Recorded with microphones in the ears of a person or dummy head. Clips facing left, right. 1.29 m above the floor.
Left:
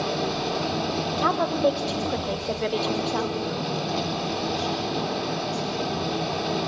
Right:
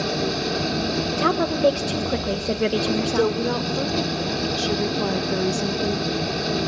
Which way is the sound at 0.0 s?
25° right (ahead or behind).